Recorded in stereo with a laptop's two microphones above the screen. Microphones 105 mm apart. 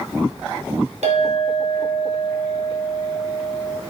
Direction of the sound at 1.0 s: 80° right.